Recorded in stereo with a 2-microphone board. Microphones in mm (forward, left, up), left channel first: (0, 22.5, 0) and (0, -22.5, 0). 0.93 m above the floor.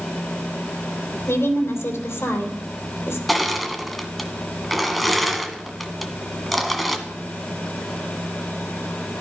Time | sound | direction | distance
1.3 | a woman speaking | 80° left | 2.5 m
3.3 | crushing | centre (ahead or behind) | 1.4 m